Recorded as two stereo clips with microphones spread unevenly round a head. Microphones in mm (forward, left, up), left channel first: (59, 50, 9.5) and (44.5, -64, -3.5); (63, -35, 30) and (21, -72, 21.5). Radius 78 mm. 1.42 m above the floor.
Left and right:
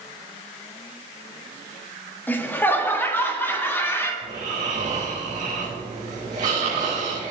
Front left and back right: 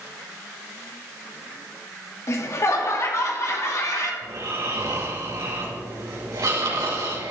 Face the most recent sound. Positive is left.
turn(degrees=-145)